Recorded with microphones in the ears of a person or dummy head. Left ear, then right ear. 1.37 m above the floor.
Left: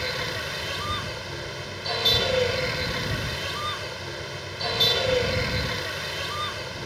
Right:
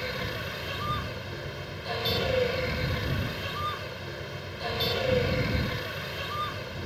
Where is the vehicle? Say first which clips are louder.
Left 4 dB; 30° left (ahead or behind).